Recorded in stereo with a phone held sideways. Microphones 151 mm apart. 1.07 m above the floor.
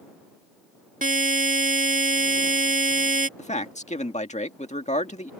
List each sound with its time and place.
1.0 s a buzzer: 60° right (ahead or behind)
3.4 s a man speaking: 50° left (ahead or behind)